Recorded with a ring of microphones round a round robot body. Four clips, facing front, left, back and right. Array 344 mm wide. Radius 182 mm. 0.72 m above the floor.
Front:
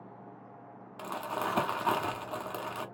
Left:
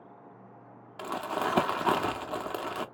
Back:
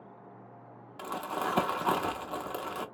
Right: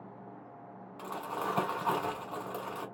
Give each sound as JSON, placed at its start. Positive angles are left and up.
{"t": 1.0, "sound": "crumpling", "azimuth_deg": 85, "distance_m": 0.9}